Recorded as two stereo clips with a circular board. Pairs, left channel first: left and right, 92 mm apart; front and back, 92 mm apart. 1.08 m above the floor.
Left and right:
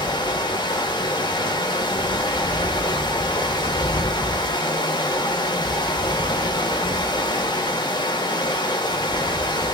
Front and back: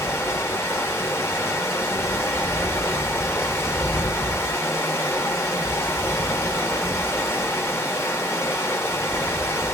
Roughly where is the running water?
Ahead left.